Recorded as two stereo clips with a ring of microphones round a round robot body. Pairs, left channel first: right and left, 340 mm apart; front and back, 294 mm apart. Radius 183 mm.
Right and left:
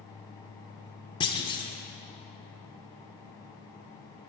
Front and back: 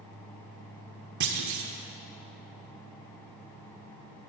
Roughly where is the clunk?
Behind.